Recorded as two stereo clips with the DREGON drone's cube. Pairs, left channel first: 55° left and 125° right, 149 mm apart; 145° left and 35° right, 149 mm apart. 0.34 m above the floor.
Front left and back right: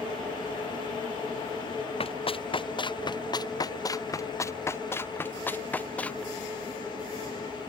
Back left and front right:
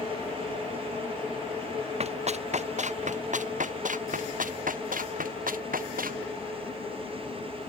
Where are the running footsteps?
5° left; by 6.2 s 25° right.